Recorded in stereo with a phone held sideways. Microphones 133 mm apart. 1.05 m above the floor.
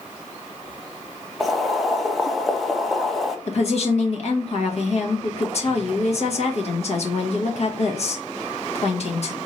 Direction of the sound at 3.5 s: 50° left (ahead or behind).